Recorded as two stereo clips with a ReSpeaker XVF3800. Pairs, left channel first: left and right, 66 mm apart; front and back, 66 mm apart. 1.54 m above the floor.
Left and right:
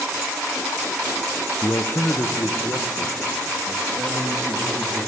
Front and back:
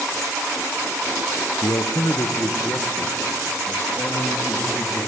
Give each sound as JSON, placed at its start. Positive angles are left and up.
{"t": 1.6, "sound": "a man speaking", "azimuth_deg": 35, "distance_m": 0.7}